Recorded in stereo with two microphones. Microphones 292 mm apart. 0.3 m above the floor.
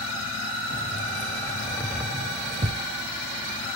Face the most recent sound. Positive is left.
turn(degrees=-40)  # may be behind; listen again after turning